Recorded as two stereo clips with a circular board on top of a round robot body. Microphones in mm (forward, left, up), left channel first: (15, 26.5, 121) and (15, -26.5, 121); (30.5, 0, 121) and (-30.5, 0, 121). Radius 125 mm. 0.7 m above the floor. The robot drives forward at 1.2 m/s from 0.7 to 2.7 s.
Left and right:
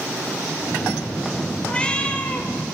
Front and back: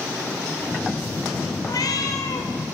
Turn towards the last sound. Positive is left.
turn(degrees=35)